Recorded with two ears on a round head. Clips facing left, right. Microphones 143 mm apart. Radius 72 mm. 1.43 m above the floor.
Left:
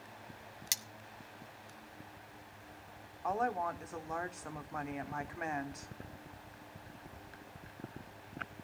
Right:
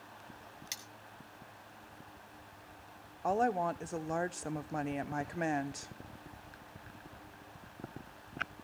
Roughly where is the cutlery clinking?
Left.